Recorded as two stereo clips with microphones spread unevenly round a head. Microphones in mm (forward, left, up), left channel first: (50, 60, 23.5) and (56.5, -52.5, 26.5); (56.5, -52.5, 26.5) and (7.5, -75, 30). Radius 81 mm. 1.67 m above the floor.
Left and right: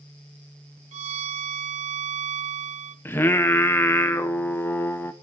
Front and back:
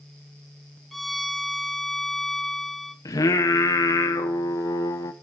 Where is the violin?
65° right, 0.7 m.